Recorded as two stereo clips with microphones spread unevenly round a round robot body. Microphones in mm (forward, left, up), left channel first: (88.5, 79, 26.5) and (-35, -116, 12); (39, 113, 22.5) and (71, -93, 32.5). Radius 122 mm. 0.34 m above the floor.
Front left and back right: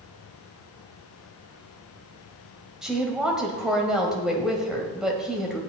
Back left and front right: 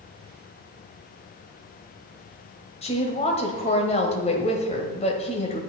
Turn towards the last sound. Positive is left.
turn(degrees=155)